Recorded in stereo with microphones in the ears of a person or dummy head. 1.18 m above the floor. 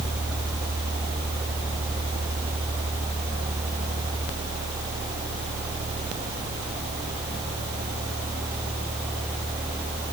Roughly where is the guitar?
No guitar in this recording.